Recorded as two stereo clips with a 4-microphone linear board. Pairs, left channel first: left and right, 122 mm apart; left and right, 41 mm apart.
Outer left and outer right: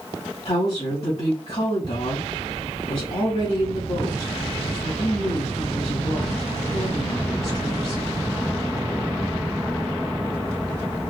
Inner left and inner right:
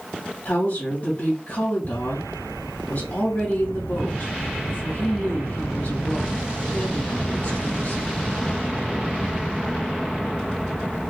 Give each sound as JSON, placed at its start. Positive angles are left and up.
{"t": 0.5, "sound": "a woman speaking", "side_deg": 60, "distance_m": 2.0}